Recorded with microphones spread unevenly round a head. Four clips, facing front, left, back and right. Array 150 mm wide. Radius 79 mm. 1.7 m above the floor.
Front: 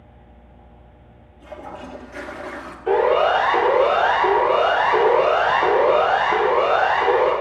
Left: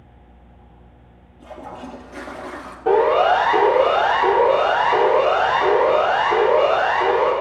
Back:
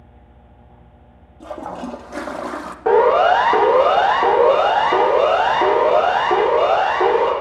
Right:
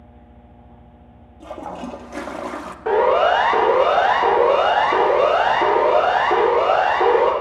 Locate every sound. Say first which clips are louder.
1.4 s a toilet flushing: right 4 dB, back 6 dB; 170° right, 0.8 m
2.9 s a siren: left 1 dB, back 4 dB; 170° left, 2 m; by 7.3 s 150° right, 4.5 m